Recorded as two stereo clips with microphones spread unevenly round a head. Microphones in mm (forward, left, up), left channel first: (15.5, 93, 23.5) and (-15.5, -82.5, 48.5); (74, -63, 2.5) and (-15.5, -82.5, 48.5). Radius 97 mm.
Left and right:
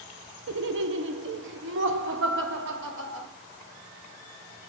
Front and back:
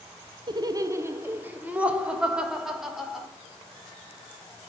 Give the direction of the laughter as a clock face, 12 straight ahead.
4 o'clock.